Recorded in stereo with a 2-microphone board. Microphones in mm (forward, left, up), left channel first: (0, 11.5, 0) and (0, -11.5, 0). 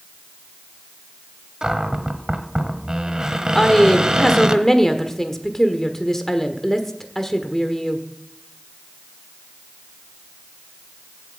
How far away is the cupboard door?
About 1.2 m.